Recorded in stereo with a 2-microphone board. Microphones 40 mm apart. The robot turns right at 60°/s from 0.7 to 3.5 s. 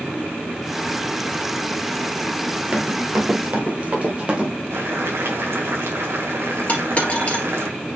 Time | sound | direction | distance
2.7 | running footsteps | 30° right (ahead or behind) | 1.7 m
4.7 | boiling | 85° right | 1.6 m
6.7 | a dropped coin | 30° left (ahead or behind) | 2.5 m